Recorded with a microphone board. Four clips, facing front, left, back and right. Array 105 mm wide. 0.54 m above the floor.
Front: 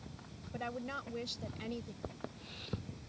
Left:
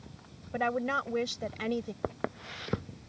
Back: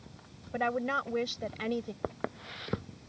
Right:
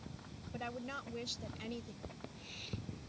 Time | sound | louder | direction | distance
0.5 | a woman speaking | left 14 dB, back 10 dB | 130° left | ?
2.0 | footsteps | left 15 dB, back 9 dB | 125° left | ?